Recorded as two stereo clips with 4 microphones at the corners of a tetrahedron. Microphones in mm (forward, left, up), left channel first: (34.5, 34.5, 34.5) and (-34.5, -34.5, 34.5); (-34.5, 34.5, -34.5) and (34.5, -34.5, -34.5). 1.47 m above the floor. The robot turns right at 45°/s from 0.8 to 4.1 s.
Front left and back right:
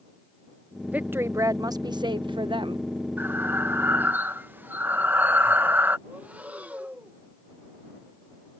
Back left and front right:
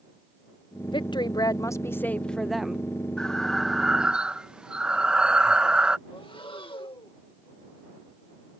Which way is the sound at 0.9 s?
155° left.